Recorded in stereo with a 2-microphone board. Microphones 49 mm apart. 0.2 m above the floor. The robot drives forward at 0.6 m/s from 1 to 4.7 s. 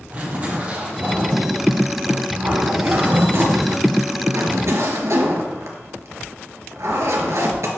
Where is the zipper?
35° right (ahead or behind), 2.5 m; by 7.7 s 70° right (ahead or behind), 1.4 m.